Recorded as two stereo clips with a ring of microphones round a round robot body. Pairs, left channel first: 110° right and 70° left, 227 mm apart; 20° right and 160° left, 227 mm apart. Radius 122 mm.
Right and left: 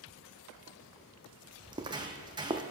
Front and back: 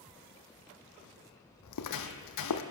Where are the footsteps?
5° right, 0.8 m.